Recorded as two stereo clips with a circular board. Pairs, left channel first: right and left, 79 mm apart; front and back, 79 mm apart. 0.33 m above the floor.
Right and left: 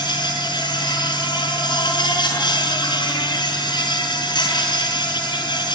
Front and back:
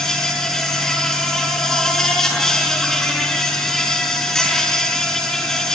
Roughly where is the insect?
Right.